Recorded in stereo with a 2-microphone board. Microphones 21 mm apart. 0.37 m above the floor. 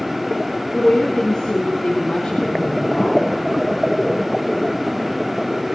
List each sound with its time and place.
0.7 s a woman speaking: 45° left (ahead or behind), 5.5 m